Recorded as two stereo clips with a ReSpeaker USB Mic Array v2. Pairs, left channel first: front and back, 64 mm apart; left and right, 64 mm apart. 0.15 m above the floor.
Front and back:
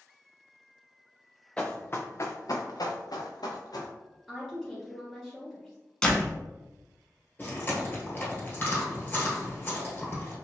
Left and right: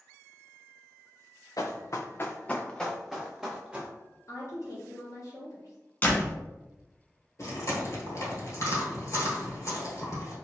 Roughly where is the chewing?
Ahead left.